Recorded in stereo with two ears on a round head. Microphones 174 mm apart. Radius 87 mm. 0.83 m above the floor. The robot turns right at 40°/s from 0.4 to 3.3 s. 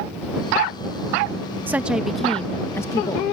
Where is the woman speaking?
20° right; by 3.2 s 45° left.